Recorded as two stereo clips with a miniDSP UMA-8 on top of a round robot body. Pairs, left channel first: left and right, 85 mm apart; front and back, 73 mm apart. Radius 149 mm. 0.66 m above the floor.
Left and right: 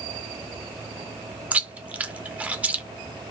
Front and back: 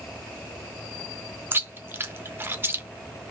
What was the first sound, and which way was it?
Chewing, 150° right.